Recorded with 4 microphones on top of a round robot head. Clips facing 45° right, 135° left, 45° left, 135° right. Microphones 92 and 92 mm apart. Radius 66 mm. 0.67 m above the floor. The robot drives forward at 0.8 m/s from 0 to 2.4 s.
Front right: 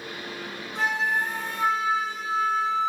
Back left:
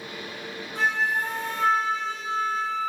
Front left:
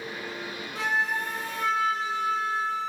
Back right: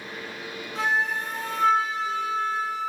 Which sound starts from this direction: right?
A flute, at 0.8 s.